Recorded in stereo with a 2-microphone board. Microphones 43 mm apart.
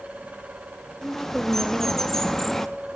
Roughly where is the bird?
Centre.